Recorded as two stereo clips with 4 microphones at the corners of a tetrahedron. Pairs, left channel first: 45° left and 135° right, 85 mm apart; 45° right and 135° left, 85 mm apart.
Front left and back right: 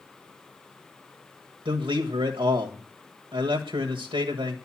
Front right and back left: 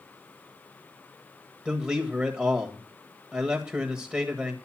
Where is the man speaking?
150° right, 1.6 m.